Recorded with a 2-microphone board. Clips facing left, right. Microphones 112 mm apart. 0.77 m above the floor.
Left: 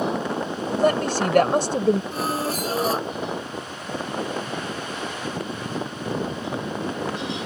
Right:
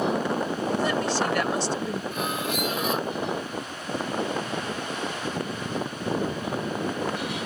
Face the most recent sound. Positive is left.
turn(degrees=35)  # may be behind; listen again after turning